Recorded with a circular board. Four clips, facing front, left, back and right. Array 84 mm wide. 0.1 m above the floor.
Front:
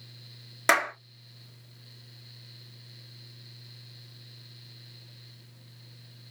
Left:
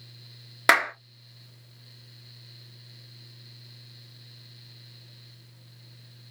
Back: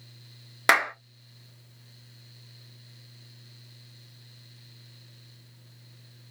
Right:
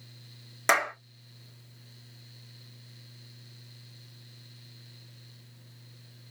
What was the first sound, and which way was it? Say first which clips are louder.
A clap: left 4 dB, back 2 dB; 120° left.